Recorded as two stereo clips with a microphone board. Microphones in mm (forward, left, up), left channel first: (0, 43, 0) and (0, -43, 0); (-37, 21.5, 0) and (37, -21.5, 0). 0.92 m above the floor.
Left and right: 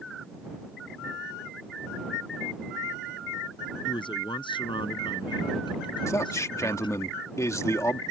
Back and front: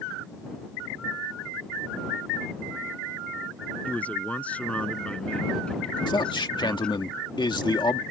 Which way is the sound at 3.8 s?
75° left.